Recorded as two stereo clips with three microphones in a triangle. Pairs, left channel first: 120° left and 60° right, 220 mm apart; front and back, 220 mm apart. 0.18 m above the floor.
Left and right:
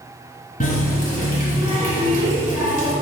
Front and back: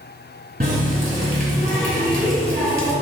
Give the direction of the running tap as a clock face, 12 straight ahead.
7 o'clock.